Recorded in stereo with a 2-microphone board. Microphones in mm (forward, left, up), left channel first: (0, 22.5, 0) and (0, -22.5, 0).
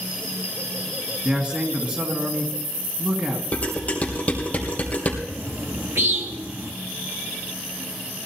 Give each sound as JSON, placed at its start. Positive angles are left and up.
{"t": 1.2, "sound": "a man speaking", "side_deg": -30, "distance_m": 1.9}
{"t": 3.5, "sound": "dishes clattering", "side_deg": 35, "distance_m": 3.5}
{"t": 5.3, "sound": "a bird", "side_deg": -70, "distance_m": 1.8}